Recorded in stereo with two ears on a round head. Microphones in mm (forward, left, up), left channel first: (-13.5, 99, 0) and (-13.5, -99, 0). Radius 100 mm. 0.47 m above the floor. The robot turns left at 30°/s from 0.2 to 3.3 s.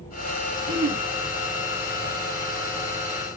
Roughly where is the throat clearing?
Right.